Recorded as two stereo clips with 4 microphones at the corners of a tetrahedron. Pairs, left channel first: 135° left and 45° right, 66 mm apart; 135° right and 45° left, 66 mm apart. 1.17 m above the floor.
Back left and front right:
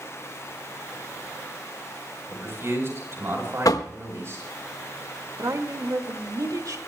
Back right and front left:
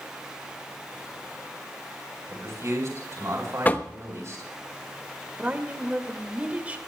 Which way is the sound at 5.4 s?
20° right.